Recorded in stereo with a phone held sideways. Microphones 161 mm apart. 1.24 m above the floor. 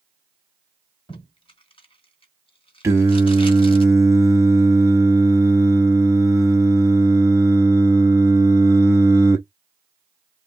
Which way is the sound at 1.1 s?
30° left (ahead or behind).